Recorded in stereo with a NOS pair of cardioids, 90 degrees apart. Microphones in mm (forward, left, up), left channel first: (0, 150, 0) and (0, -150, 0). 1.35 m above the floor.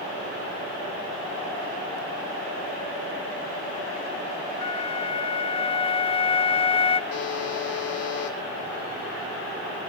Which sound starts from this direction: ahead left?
A buzzer, at 7.1 s.